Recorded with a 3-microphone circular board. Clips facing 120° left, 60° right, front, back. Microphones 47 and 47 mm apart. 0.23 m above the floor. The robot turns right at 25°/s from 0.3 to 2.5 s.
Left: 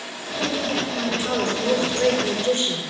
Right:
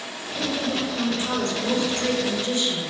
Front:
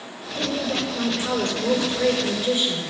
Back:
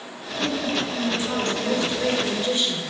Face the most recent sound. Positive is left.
turn(degrees=85)